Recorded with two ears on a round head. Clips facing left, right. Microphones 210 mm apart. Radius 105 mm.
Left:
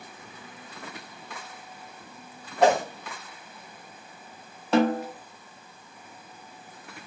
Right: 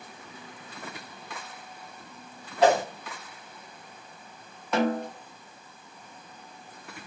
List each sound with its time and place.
2.6 s a whoosh: 40° left (ahead or behind), 1.1 m
4.7 s a snare drum: 25° left (ahead or behind), 0.7 m